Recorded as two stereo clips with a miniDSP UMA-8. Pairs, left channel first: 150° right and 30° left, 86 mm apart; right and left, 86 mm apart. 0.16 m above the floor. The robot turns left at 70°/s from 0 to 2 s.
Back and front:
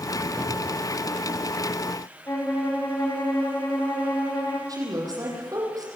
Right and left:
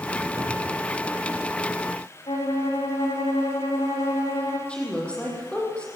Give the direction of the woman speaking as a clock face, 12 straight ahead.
12 o'clock.